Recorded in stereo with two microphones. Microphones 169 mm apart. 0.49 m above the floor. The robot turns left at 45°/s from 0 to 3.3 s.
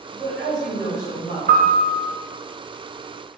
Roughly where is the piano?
Right.